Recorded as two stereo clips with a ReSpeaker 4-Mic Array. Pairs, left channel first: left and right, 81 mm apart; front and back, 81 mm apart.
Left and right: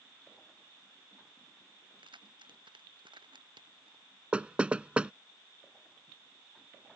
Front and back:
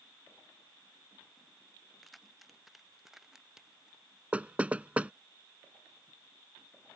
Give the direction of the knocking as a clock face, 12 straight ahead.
5 o'clock.